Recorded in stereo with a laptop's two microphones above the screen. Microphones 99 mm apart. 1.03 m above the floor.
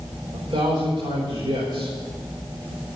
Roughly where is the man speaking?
Right.